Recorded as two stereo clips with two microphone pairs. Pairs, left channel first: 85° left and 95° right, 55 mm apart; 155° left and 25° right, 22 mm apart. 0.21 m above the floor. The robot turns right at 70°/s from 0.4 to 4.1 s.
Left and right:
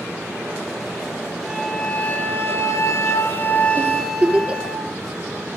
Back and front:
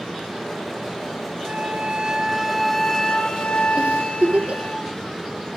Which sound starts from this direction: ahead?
A flute, at 1.5 s.